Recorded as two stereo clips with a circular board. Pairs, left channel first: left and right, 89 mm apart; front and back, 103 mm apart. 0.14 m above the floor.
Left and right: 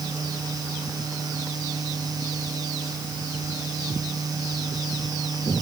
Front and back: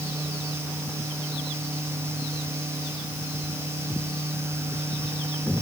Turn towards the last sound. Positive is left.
No sound to turn to.